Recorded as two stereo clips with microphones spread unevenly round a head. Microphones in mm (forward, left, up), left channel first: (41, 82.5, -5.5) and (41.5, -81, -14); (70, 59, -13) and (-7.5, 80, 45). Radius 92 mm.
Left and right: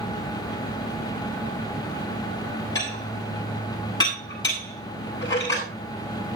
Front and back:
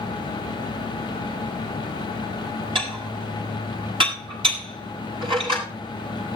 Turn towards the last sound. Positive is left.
turn(degrees=160)